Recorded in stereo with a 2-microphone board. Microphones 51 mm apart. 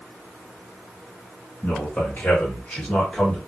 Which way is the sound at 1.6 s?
40° left (ahead or behind).